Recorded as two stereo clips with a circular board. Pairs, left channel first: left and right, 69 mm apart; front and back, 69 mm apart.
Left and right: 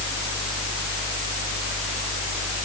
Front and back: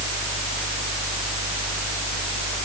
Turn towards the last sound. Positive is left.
No sound to turn to.